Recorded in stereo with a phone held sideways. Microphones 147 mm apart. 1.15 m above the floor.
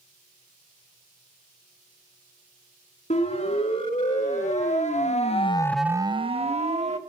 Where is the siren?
55° left (ahead or behind), 3.5 m; by 7.0 s 50° right (ahead or behind), 1.8 m.